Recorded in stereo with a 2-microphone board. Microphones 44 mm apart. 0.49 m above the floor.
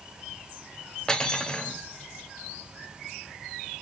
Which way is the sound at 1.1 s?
15° left (ahead or behind).